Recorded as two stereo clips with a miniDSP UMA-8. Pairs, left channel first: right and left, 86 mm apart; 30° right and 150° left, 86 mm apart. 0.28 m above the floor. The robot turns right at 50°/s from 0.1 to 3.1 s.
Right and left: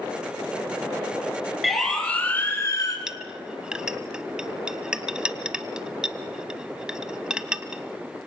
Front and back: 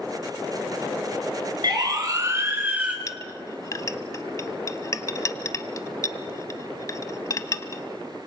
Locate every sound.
1.6 s a siren: straight behind, 3.5 m; by 3.0 s 135° right, 3 m
3.1 s a clink: 10° left, 0.9 m